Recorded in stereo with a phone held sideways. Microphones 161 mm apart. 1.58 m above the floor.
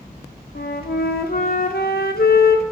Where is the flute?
75° left (ahead or behind), 0.8 m.